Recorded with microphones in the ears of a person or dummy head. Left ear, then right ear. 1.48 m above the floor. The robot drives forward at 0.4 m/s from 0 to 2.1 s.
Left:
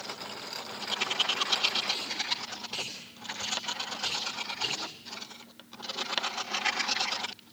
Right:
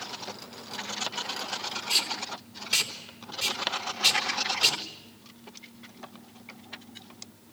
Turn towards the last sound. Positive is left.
turn(degrees=-55)  # may be behind; listen again after turning